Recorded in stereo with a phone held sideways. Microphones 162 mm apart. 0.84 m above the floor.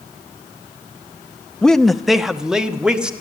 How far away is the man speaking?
About 0.6 m.